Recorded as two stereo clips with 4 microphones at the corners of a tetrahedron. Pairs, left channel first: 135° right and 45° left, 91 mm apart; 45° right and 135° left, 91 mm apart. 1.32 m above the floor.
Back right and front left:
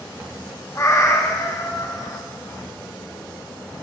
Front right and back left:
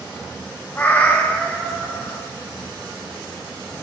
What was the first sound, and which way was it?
A cat meowing, 105° right.